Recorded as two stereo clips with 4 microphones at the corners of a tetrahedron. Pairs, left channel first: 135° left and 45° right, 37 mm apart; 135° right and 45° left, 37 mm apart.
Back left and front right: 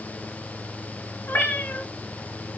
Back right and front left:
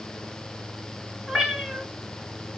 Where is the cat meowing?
120° left, 2 m.